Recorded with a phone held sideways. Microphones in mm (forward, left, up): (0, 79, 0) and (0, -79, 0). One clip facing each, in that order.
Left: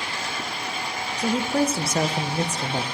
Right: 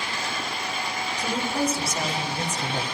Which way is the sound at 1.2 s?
70° left (ahead or behind).